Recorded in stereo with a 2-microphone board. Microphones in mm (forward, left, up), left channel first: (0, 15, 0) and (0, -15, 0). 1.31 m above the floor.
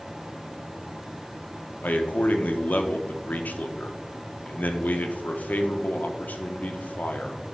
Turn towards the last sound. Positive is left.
turn(degrees=75)  # may be behind; listen again after turning